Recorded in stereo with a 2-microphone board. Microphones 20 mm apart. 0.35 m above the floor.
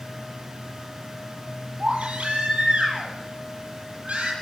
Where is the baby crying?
70° right (ahead or behind), 7 m.